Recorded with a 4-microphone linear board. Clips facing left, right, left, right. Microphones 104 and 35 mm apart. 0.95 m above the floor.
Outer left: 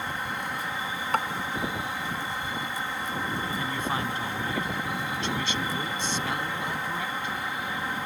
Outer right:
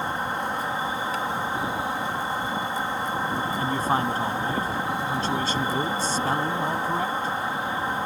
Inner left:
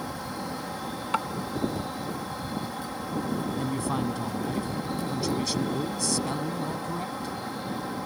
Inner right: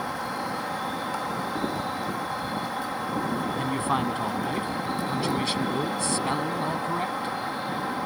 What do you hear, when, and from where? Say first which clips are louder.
0.0 s an insect: outer right 5 dB, inner right 4 dB; 35° right (ahead or behind)
1.1 s tapping: outer left 1 dB, inner left 3 dB; 60° left (ahead or behind)
3.6 s a man speaking: outer right 8 dB, inner right 3 dB; 35° right (ahead or behind)